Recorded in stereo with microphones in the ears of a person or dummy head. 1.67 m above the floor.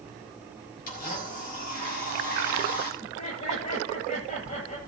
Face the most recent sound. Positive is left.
turn(degrees=40)  # may be behind; listen again after turning